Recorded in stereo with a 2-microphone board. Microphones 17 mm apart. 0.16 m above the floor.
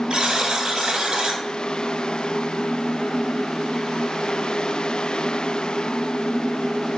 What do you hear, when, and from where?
0.1 s a buzzer: 55° right (ahead or behind), 0.8 m